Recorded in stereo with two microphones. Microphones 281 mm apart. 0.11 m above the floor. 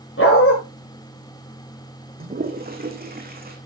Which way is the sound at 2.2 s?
35° right (ahead or behind).